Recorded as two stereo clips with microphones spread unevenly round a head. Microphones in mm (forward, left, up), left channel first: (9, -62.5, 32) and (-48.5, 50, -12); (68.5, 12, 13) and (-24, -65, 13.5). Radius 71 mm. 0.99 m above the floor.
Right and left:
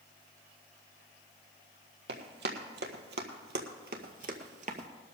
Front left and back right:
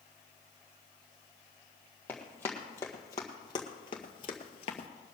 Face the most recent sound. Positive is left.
turn(degrees=65)